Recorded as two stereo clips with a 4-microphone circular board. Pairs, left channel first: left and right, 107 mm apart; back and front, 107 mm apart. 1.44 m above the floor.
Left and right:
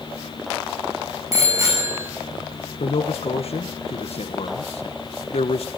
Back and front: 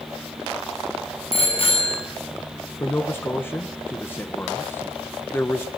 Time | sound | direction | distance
1.3 | a bicycle bell | 150° right | 9 m
2.8 | a man speaking | 110° left | 1.3 m